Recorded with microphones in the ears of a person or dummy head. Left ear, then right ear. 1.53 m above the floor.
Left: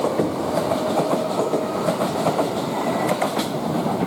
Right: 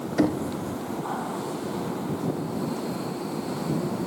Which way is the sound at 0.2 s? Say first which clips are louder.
Left 2 dB; 65° right (ahead or behind).